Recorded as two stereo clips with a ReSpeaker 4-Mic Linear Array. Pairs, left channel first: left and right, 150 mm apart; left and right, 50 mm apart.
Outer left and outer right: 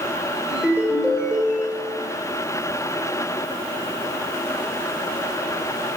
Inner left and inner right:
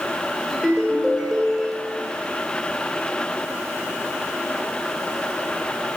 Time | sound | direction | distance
0.5 | a ringtone | 5° right (ahead or behind) | 3 m